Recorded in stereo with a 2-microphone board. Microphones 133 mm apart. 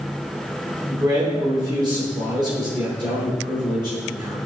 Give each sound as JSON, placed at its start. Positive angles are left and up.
{"t": 0.9, "sound": "a man speaking", "side_deg": -35, "distance_m": 3.0}